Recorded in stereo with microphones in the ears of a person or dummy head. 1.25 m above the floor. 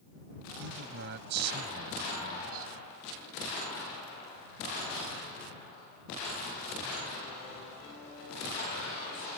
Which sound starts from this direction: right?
A man speaking, at 0.6 s.